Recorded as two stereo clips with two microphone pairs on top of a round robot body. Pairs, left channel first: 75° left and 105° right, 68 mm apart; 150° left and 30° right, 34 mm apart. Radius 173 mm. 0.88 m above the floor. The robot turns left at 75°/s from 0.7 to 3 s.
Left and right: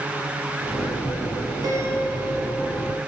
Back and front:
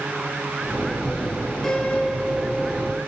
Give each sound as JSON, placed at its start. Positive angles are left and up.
{"t": 1.6, "sound": "a piano", "azimuth_deg": -125, "distance_m": 3.5}